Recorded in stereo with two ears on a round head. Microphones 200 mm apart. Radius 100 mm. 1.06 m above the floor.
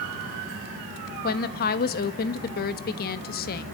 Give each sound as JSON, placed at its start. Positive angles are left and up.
{"t": 1.2, "sound": "a woman speaking", "side_deg": 40, "distance_m": 1.3}